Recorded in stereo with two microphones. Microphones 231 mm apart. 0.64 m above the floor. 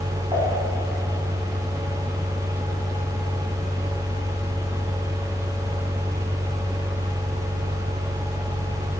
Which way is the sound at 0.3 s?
20° right (ahead or behind).